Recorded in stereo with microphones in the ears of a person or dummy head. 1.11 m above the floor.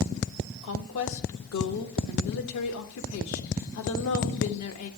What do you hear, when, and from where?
0.6 s a woman speaking: 75° left (ahead or behind), 1.1 m